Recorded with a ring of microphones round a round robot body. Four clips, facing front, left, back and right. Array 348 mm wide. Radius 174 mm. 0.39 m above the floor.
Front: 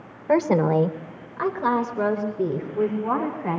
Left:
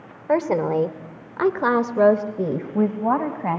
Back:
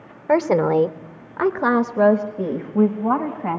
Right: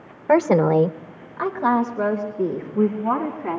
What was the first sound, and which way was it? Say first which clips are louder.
A woman speaking: right 4 dB, back 2 dB; 115° right.